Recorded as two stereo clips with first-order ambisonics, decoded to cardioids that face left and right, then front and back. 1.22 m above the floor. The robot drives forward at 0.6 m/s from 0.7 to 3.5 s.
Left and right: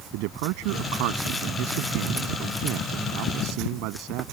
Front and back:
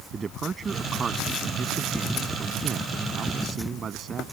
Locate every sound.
0.1 s a man speaking: 110° right; by 4.2 s 115° right